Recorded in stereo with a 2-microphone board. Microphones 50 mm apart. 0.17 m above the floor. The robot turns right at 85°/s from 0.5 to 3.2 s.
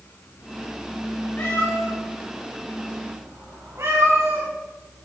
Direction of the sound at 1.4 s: 40° left (ahead or behind).